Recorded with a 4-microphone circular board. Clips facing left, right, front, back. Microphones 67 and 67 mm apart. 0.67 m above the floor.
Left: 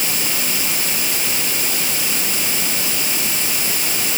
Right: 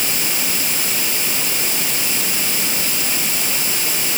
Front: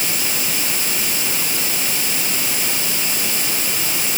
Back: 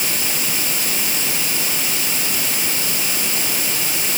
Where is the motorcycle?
I don't hear a motorcycle.